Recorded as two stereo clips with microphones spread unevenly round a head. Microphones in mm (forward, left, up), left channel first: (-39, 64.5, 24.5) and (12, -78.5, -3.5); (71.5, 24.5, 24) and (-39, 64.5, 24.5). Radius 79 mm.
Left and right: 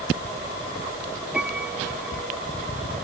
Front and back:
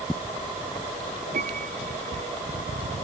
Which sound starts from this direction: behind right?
A piano, at 1.3 s.